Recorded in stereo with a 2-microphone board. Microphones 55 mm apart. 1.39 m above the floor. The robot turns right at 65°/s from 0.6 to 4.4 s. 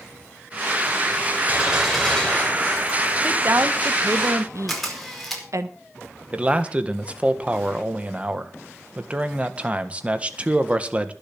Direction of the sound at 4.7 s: Centre (ahead or behind).